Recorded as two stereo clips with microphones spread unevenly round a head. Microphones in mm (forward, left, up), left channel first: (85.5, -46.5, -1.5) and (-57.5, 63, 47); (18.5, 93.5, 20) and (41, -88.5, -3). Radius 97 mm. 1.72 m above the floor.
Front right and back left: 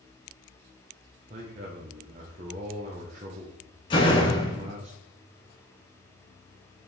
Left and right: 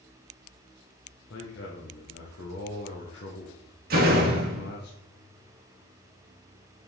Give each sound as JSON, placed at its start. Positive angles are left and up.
{"t": 1.3, "sound": "a man speaking", "azimuth_deg": 105, "distance_m": 1.1}
{"t": 3.9, "sound": "a door slam", "azimuth_deg": -110, "distance_m": 1.2}